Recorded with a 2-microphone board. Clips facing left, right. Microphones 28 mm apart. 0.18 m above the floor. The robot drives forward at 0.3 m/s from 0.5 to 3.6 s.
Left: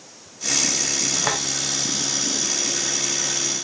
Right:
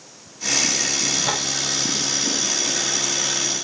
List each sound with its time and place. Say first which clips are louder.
1.2 s a door slam: right 1 dB; 55° left (ahead or behind), 9.5 m